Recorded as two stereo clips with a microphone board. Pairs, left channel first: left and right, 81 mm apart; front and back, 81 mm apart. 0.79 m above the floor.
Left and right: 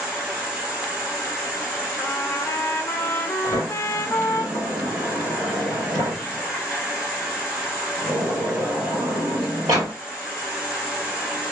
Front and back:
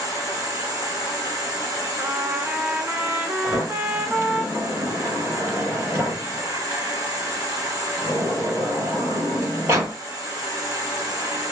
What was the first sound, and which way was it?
An insect, 165° right.